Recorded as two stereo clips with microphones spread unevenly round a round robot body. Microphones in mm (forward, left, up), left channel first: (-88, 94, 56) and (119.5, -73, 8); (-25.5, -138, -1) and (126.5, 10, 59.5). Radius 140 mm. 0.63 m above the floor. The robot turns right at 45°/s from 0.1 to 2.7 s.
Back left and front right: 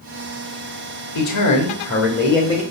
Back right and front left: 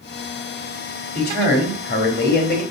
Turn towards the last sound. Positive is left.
turn(degrees=-140)